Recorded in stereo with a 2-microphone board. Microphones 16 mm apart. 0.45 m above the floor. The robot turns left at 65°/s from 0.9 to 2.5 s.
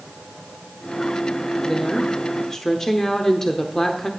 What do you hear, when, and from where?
1.6 s a woman speaking: 20° left (ahead or behind), 0.9 m; by 4.1 s 30° left (ahead or behind), 0.9 m